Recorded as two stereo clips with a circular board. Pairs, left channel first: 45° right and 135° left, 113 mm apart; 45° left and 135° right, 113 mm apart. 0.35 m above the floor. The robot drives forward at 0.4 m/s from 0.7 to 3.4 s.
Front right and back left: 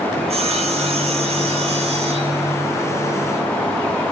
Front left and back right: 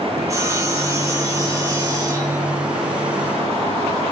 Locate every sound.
0.2 s sawing: 160° left, 6 m; by 2.6 s 165° left, 7 m